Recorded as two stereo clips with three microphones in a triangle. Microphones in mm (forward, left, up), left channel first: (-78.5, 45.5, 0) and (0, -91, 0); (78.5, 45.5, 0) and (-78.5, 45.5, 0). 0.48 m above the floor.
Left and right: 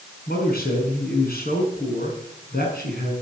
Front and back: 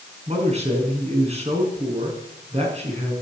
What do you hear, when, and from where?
0.3 s a man speaking: 135° left, 5.5 m